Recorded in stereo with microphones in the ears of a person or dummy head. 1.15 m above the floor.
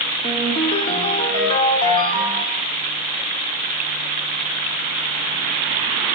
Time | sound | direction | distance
0.2 | a ringtone | 35° left (ahead or behind) | 1.7 m